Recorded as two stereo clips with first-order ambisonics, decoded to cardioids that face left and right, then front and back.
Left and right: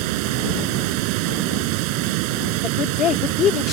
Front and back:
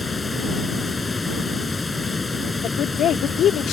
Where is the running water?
80° right.